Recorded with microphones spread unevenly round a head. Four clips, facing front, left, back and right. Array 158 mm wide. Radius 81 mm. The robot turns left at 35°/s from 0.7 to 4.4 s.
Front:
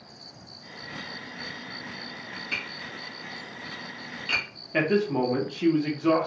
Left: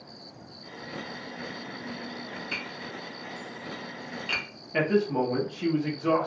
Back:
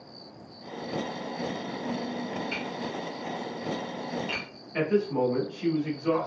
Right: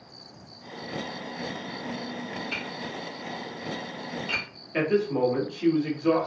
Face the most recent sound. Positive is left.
turn(degrees=20)